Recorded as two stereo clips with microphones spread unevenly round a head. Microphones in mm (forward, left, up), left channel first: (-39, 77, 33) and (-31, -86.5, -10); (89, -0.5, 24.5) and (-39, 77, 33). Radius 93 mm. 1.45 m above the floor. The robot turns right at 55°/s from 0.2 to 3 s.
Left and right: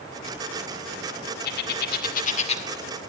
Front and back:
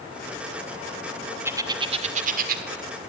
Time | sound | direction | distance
1.4 | a bird | 75° left | 2 m